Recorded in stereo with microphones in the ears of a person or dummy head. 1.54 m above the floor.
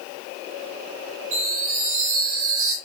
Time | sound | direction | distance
1.3 | a chime | 40° right (ahead or behind) | 2.5 m